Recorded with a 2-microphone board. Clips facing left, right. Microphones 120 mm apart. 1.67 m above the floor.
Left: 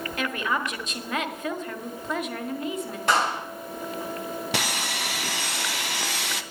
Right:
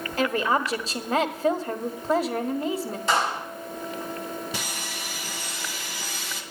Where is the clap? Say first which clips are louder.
Left 1 dB; 60° left (ahead or behind), 7 m.